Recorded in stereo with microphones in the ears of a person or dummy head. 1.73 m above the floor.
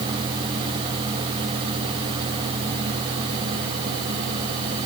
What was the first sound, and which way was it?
Only background noise.